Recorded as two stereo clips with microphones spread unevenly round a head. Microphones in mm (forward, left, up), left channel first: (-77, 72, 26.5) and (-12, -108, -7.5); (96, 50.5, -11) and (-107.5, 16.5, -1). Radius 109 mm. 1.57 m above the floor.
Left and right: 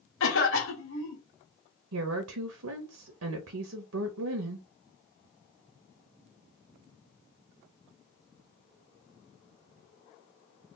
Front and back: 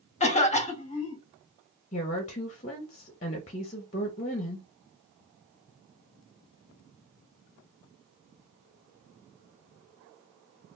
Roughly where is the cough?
Left.